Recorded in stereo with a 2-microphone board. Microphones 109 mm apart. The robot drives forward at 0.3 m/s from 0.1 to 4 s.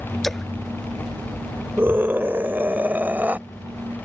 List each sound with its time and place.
0.2 s a splash: 5° left (ahead or behind)
1.8 s a scream: 20° right (ahead or behind); by 3.4 s 15° right (ahead or behind)